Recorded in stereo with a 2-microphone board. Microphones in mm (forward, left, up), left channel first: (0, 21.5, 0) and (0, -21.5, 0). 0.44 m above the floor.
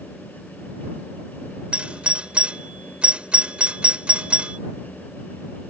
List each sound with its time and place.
1.7 s a doorbell: 25° right (ahead or behind)